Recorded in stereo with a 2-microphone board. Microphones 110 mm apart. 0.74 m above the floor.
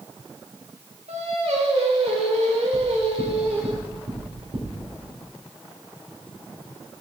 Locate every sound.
1.1 s singing: 80° right, 1.6 m
2.7 s knocking: 65° right (ahead or behind), 2.5 m